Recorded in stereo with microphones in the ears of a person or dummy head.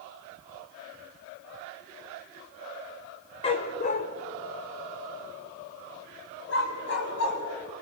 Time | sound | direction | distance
3.4 | a dog barking | 40° left (ahead or behind) | 1.5 m